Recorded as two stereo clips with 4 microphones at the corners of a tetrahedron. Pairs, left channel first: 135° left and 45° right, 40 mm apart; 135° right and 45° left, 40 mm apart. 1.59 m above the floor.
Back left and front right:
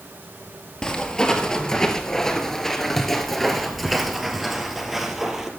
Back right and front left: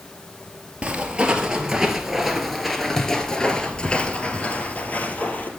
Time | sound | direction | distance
0.8 | footsteps | 80° left | 1.8 m